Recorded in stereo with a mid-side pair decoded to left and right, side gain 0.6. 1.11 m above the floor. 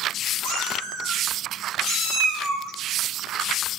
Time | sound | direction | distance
0.4 | a cat meowing | 70° right | 8.5 m